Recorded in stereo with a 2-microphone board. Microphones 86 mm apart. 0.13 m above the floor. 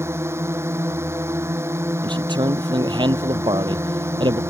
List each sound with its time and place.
0.0 s a drone: 30° right (ahead or behind)
2.0 s a man speaking: 65° right (ahead or behind)